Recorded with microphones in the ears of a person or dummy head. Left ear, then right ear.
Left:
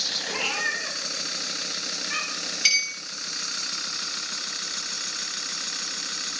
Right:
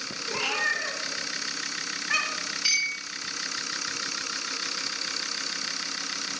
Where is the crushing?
No crushing in this recording.